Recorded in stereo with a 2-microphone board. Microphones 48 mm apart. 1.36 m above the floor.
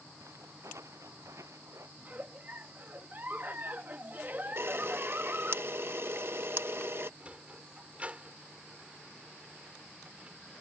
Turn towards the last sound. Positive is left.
turn(degrees=-25)  # may be behind; listen again after turning